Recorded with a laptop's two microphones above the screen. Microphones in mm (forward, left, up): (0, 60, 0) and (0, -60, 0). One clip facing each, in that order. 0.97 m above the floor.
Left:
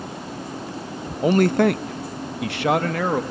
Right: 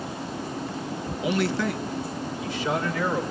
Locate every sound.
1.2 s a man speaking: 40° left (ahead or behind), 0.5 m; by 3.2 s 60° left (ahead or behind), 1.0 m